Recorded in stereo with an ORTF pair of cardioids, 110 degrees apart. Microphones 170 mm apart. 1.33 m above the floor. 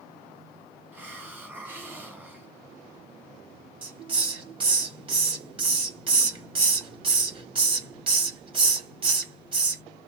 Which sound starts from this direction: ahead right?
A hiss, at 3.8 s.